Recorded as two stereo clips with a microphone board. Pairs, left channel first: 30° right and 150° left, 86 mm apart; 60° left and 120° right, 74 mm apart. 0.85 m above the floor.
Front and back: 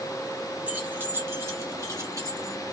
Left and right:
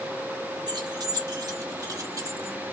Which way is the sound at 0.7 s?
140° right.